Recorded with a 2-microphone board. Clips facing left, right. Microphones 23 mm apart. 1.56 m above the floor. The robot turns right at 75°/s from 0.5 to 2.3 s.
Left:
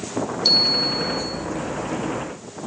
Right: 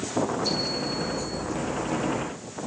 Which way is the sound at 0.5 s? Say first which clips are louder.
Left 10 dB; 85° left.